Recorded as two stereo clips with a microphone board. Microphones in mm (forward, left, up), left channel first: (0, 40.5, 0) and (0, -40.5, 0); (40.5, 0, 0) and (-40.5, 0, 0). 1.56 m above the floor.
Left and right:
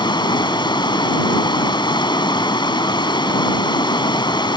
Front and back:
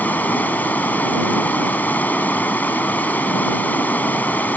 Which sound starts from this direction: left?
Running water, at 0.0 s.